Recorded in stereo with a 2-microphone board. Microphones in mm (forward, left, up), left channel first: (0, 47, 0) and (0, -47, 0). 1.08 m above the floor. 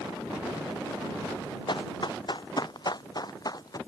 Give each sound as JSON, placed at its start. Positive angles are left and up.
{"t": 1.7, "sound": "running footsteps", "side_deg": 55}